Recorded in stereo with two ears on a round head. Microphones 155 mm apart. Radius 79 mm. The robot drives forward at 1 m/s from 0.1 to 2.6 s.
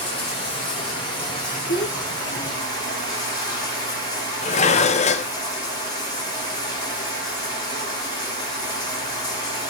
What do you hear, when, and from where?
0.0 s running water: 35° left (ahead or behind), 6.5 m; by 9.7 s 25° left (ahead or behind), 8.5 m
1.7 s a child speaking: 75° left (ahead or behind), 3 m; by 3.1 s 80° left, 3 m
4.4 s dishes clattering: 40° left (ahead or behind), 0.5 m